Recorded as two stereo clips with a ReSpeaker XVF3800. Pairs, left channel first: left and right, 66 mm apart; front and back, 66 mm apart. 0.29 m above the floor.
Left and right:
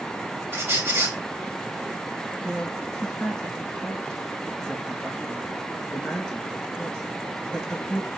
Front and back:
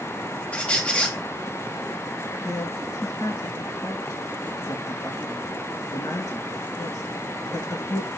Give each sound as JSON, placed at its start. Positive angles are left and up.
{"t": 0.5, "sound": "a squeak", "azimuth_deg": -60, "distance_m": 1.1}
{"t": 2.4, "sound": "a man speaking", "azimuth_deg": 5, "distance_m": 4.0}